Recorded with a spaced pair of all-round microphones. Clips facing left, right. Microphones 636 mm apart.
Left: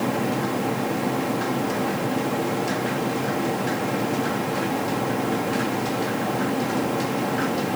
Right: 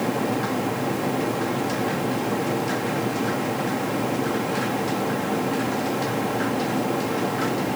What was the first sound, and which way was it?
Only background noise.